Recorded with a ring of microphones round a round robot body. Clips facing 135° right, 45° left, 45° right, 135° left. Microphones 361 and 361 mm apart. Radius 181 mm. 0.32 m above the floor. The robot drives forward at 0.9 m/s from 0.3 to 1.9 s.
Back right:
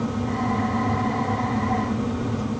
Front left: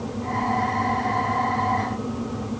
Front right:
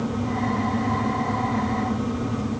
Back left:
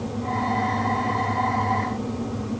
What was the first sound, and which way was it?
Only background noise.